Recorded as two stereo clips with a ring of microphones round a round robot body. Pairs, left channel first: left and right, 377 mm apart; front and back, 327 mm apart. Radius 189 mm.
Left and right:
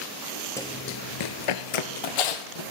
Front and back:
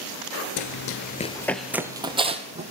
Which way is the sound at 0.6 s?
10° left.